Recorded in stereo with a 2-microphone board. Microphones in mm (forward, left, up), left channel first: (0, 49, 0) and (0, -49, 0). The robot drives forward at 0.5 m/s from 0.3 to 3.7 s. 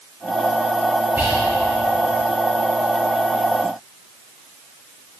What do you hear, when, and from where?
1.2 s whispering: 20° right (ahead or behind), 1.0 m